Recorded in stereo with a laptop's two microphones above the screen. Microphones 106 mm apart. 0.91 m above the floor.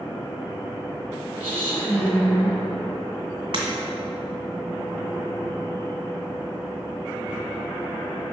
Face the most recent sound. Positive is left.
turn(degrees=-60)  # may be behind; listen again after turning